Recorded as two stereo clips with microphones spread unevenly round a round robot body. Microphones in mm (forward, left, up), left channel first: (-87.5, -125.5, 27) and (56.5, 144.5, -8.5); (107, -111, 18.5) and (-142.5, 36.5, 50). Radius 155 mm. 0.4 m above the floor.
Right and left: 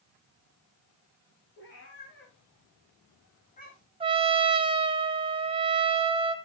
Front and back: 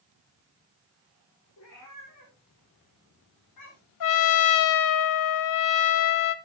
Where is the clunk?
No clunk in this recording.